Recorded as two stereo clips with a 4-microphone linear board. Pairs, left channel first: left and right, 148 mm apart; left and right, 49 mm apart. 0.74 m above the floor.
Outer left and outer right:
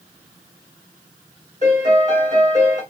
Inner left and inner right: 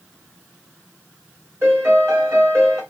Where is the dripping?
I don't hear dripping.